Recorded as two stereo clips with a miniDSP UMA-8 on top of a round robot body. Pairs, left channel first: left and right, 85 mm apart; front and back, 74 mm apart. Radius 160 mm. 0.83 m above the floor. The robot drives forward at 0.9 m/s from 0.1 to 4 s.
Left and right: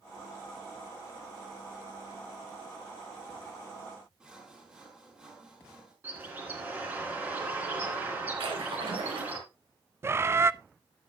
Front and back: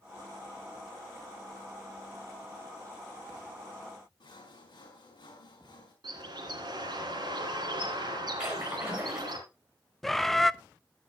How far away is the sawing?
About 4.5 m.